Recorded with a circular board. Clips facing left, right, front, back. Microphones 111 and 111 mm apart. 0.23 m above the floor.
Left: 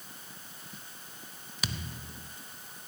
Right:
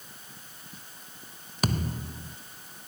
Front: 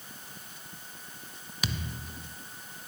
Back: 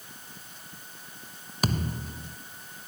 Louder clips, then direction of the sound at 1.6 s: Right 10 dB, back 7 dB; 135° right.